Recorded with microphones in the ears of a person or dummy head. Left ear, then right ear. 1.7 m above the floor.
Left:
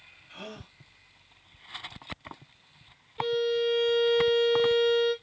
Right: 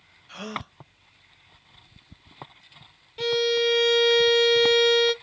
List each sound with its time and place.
0.3 s a gasp: 65° right (ahead or behind), 1.0 m
3.2 s a violin: 80° right, 0.5 m